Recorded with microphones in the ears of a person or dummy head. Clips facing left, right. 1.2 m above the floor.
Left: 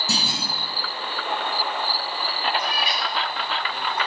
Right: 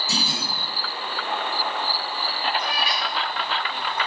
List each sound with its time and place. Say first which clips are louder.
0.1 s a clunk: even; 70° left (ahead or behind), 8.5 m
2.6 s a cat meowing: even; 70° left (ahead or behind), 7 m